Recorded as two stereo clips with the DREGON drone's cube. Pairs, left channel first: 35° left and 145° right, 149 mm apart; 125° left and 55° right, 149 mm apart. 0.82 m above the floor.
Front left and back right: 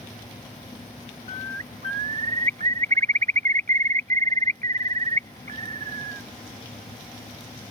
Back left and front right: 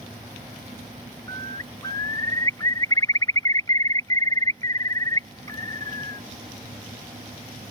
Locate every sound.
1.3 s a bird: 170° right